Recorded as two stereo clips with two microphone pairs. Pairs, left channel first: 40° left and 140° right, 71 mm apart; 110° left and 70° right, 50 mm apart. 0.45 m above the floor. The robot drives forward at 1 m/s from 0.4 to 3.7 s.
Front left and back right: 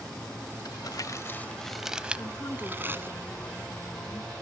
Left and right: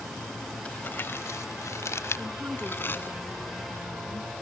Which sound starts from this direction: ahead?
A woman speaking, at 2.2 s.